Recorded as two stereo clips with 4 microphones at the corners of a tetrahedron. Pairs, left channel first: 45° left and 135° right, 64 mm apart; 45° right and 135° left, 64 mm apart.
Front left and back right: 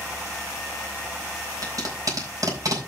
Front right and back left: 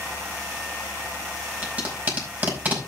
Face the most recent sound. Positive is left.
turn(degrees=-160)